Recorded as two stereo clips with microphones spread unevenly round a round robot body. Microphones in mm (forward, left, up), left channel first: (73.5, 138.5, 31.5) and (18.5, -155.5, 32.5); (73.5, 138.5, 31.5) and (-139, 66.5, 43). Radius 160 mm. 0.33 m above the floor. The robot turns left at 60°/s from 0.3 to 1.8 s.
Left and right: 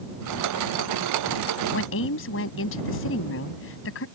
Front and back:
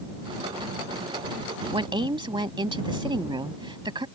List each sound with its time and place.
1.7 s a woman speaking: 135° left; by 4.1 s 130° left